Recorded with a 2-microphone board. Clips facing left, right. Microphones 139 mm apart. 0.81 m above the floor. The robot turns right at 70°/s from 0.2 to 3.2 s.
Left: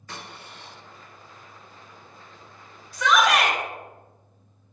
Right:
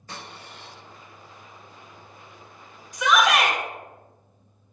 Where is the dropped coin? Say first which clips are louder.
Even; 145° right, 1.8 m; by 0.7 s 110° right, 1.8 m.